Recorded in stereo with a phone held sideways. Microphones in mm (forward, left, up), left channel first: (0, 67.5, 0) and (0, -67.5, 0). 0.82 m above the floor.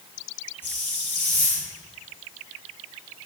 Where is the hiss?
15° left (ahead or behind), 6.5 m.